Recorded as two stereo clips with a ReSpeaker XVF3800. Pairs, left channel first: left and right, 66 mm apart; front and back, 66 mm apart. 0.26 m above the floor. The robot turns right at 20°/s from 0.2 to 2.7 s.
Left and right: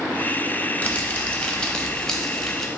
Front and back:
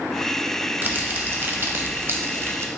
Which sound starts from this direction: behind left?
Crumpling, at 0.8 s.